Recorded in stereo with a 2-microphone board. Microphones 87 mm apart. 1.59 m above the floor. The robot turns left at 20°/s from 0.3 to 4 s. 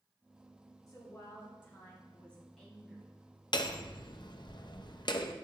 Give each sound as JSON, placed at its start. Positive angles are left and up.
{"t": 0.9, "sound": "a woman speaking", "azimuth_deg": 40, "distance_m": 3.0}
{"t": 3.5, "sound": "hammering", "side_deg": 60, "distance_m": 0.6}